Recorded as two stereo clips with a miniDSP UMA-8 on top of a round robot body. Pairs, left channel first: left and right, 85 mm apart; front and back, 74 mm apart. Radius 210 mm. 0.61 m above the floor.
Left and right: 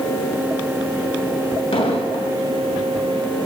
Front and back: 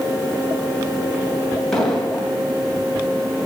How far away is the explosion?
About 3 m.